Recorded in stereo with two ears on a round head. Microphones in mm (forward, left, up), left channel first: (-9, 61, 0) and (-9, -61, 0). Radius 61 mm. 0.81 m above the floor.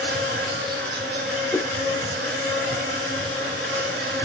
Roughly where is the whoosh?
Centre.